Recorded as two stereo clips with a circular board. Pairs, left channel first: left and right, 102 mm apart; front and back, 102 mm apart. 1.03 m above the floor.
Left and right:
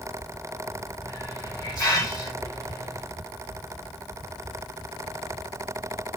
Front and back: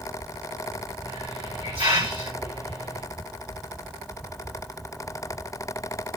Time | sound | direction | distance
1.0 | a hiss | 145° left | 3 m